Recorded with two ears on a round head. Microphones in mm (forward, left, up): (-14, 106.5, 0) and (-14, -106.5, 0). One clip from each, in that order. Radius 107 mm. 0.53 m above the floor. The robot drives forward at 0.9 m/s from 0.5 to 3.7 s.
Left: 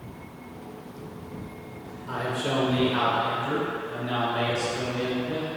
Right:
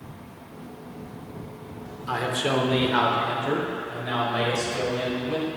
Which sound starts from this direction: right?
A man speaking, at 2.1 s.